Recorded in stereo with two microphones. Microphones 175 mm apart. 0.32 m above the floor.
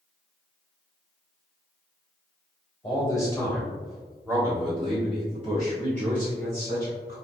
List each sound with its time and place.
2.8 s a man speaking: 25° left (ahead or behind), 1.2 m; by 7.2 s 55° right (ahead or behind), 2.5 m